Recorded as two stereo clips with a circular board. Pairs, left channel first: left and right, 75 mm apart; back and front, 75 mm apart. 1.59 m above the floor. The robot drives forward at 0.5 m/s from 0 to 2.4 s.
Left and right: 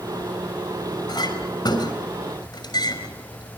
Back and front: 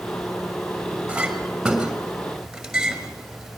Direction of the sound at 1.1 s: 80° left.